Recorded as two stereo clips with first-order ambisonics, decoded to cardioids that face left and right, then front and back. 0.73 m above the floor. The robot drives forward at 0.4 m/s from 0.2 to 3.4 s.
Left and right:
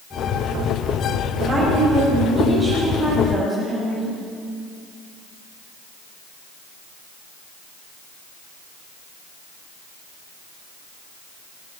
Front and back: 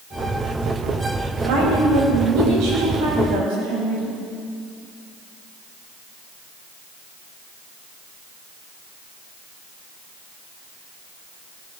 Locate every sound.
1.4 s a woman speaking: 160° right, 4 m; by 4.2 s 165° right, 5 m